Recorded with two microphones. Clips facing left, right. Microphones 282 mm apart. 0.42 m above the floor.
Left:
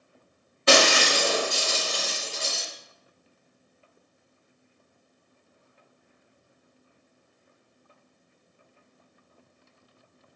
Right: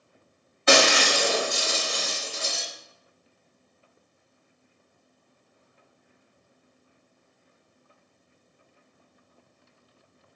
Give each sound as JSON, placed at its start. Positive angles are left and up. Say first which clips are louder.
{"t": 0.7, "sound": "breaking glass", "louder": "even", "side_deg": 40, "distance_m": 1.0}